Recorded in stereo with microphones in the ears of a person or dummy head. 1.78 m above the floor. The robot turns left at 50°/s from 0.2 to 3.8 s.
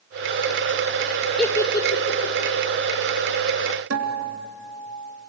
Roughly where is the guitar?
Right.